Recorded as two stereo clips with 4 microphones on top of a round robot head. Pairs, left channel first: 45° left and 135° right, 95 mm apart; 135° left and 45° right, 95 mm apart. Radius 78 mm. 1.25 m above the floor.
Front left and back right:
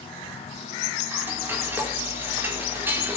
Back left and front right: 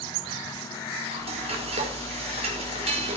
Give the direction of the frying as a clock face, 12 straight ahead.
2 o'clock.